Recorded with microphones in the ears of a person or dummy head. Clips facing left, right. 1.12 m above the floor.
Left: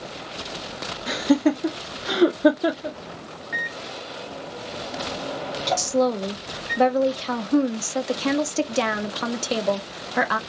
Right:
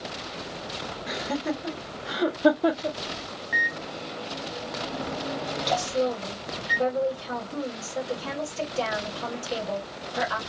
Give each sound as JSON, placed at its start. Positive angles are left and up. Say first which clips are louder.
{"t": 1.1, "sound": "laughter", "louder": "left 11 dB", "side_deg": 65, "distance_m": 0.9}
{"t": 3.5, "sound": "a microwave", "louder": "even", "side_deg": 0, "distance_m": 1.1}
{"t": 5.8, "sound": "a woman speaking", "louder": "left 5 dB", "side_deg": 70, "distance_m": 0.6}